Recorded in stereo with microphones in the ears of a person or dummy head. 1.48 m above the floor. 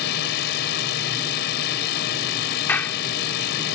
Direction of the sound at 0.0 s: 60° left (ahead or behind).